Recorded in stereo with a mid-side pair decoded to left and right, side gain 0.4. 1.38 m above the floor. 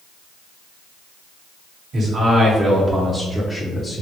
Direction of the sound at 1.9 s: 55° right.